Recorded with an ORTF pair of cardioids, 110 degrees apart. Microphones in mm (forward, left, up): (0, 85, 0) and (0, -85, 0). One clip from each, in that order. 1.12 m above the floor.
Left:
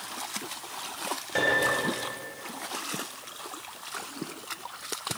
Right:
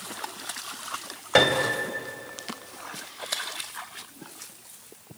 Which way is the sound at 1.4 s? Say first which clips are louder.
Right 4 dB; 65° right.